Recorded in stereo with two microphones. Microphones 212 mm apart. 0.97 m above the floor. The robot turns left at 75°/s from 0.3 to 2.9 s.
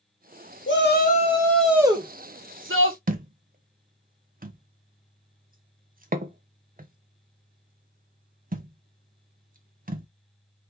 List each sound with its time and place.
0.7 s a shout: 75° left, 1.0 m; by 3.0 s 95° right, 1.0 m
3.1 s a thud: 40° right (ahead or behind), 0.6 m